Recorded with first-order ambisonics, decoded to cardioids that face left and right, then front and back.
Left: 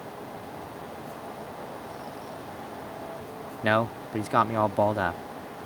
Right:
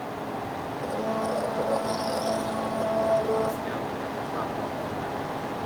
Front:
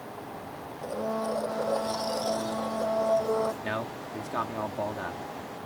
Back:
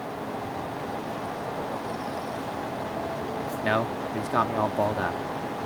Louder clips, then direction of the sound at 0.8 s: Right 11 dB, front 1 dB; 55° right.